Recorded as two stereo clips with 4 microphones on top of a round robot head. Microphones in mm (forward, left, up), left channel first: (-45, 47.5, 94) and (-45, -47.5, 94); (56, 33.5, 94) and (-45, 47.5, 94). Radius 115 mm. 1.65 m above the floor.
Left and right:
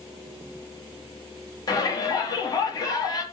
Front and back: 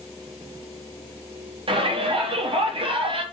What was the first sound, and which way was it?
A shout, 140° left.